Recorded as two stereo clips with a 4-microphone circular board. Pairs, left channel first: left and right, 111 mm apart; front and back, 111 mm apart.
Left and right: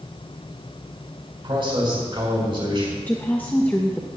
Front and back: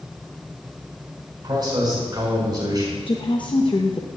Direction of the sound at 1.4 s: 130° right.